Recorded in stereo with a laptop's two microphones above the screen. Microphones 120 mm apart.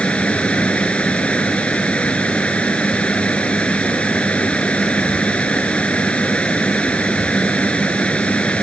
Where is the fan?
10° left (ahead or behind).